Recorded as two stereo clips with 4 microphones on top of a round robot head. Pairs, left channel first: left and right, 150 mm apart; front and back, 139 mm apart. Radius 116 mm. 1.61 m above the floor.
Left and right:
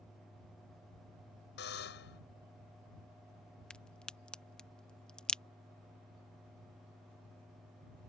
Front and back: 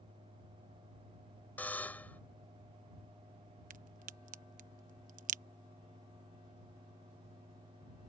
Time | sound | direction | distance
1.6 | a buzzer | 75° left | ?
3.7 | a crack | 175° left | ?